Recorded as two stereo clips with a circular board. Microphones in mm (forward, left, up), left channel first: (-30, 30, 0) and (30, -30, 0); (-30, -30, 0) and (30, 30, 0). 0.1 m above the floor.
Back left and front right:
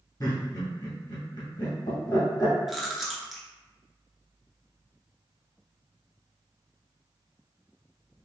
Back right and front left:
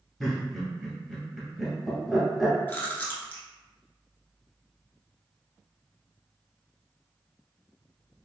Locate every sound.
0.2 s laughter: 140° left, 1.4 m
2.7 s chewing: 130° right, 0.7 m